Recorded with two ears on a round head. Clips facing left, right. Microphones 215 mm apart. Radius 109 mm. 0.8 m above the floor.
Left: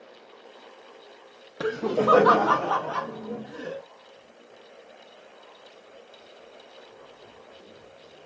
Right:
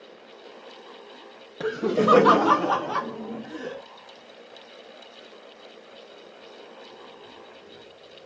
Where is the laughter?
5° left (ahead or behind), 0.5 m; by 3.8 s 60° right (ahead or behind), 2 m.